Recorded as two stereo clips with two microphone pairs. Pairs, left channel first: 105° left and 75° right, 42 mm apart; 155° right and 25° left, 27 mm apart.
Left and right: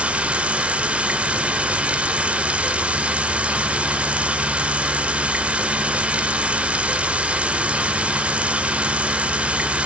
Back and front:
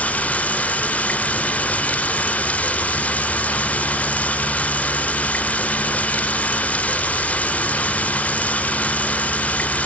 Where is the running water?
135° right, 0.9 m.